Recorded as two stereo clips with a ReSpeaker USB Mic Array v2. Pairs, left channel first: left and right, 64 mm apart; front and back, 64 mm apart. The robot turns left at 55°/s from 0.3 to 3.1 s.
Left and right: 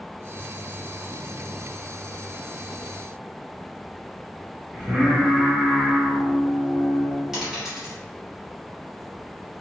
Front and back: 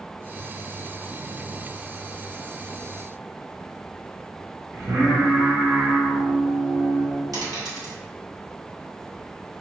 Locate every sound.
4.7 s singing: 155° right, 1.5 m
7.3 s a dropped coin: 170° right, 1.3 m